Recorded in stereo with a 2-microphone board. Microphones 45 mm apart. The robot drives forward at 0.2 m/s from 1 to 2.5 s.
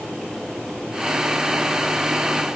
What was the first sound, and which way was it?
Only background noise.